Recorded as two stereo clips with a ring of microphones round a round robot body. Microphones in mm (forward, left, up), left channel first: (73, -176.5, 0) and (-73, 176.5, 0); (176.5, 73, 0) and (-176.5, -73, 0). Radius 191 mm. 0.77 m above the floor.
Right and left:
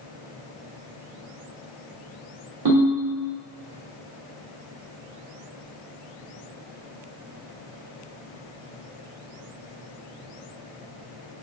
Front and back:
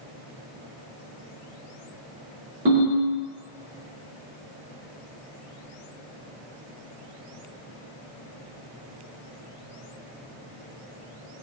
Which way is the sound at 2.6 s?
145° left.